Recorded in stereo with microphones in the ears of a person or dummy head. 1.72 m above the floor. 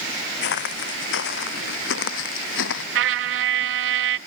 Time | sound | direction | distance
0.4 | footsteps | 60° left (ahead or behind) | ?
3.0 | a trumpet | 65° right (ahead or behind) | ?